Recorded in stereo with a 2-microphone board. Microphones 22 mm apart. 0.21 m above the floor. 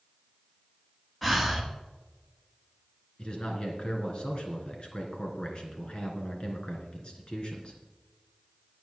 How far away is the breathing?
About 1.8 m.